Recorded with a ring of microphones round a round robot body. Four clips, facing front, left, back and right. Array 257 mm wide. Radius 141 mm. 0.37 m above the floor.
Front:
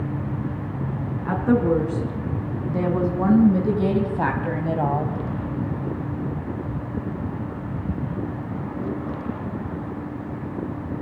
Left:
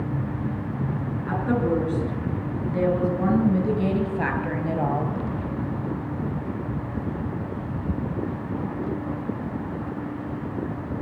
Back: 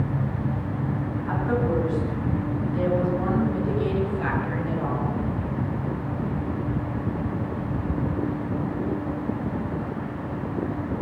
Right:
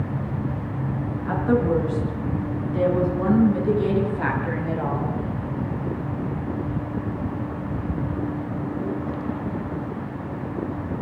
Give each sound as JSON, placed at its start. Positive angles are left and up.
{"t": 1.2, "sound": "a woman speaking", "azimuth_deg": 15, "distance_m": 5.0}